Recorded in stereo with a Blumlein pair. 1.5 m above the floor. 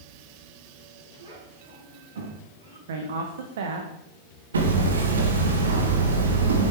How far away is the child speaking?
About 6 m.